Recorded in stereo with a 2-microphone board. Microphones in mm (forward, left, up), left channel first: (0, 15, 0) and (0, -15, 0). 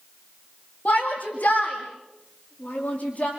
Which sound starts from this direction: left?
A shout, at 0.8 s.